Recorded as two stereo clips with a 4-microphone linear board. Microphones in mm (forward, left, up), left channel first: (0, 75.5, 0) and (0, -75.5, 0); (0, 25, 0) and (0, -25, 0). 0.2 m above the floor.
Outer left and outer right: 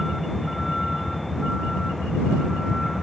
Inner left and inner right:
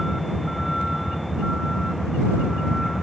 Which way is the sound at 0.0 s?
Centre (ahead or behind).